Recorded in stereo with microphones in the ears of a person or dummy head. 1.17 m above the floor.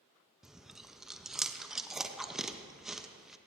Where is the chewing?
5° right (ahead or behind), 0.6 m.